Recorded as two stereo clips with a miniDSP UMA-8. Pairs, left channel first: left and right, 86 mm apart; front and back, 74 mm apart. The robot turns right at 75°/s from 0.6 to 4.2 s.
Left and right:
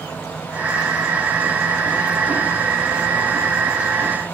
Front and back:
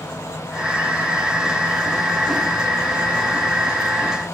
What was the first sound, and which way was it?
Only background noise.